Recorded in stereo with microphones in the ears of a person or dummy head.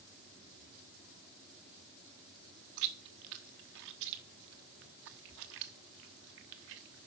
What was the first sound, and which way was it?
Chewing, 55° right (ahead or behind).